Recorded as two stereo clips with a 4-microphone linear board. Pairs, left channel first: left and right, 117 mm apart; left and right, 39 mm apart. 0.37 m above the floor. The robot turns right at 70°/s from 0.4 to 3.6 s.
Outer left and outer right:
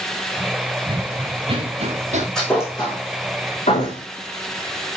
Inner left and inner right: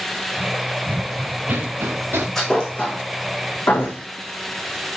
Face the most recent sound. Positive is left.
turn(degrees=85)